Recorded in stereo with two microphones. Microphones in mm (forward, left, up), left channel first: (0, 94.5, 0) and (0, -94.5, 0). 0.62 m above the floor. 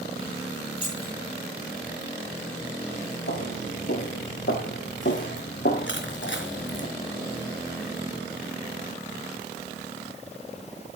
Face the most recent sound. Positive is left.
turn(degrees=85)